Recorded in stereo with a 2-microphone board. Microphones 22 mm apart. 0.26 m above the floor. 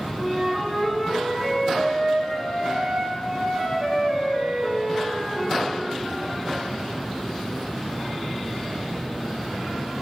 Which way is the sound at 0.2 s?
15° right (ahead or behind).